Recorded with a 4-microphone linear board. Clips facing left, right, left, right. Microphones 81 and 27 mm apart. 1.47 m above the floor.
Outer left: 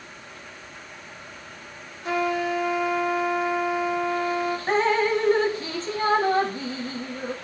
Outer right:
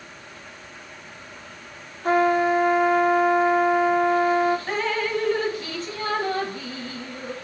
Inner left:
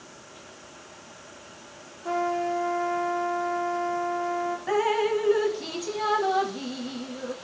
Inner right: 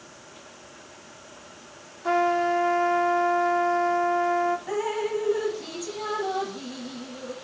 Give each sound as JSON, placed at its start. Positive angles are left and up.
{"t": 2.0, "sound": "a trumpet", "side_deg": -40, "distance_m": 1.6}
{"t": 4.7, "sound": "dripping", "side_deg": 30, "distance_m": 1.2}